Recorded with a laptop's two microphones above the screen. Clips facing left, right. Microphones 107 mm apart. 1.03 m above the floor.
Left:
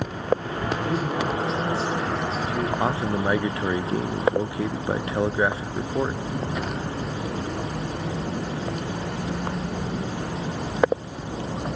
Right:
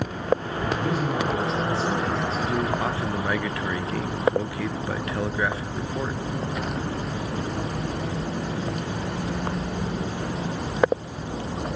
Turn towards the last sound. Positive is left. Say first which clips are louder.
# left 3 dB
turn(degrees=25)  # may be behind; listen again after turning